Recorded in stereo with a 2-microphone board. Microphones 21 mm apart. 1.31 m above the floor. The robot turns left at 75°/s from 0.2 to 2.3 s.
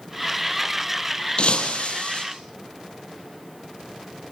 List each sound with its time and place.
1.4 s breaking glass: 125° left, 4 m; by 2.2 s 60° left, 4 m